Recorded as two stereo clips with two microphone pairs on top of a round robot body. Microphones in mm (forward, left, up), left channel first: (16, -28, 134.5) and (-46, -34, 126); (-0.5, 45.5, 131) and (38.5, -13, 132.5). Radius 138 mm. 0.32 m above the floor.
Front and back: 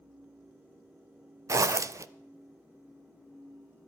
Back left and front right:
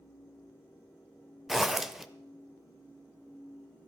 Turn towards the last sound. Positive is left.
turn(degrees=-145)